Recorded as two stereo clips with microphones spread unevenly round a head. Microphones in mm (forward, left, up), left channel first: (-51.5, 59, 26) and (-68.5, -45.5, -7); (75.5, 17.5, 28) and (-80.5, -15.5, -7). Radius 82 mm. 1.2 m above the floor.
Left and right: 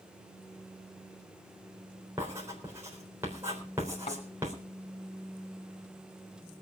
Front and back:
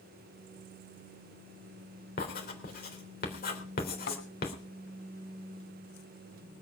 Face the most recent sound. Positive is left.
turn(degrees=35)